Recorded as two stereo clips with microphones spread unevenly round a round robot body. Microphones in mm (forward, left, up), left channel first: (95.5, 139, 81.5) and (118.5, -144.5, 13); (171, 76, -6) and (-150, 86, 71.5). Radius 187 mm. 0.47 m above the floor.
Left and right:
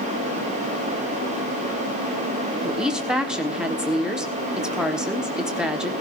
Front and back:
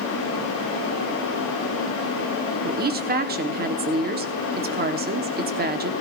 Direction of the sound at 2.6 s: 130° right.